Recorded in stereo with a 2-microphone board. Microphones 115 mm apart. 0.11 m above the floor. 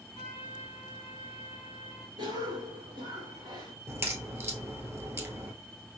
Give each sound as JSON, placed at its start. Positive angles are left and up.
{"t": 0.1, "sound": "a trumpet", "side_deg": -50, "distance_m": 2.5}
{"t": 2.2, "sound": "a cough", "side_deg": -40, "distance_m": 1.6}
{"t": 3.9, "sound": "a crack", "side_deg": -20, "distance_m": 1.0}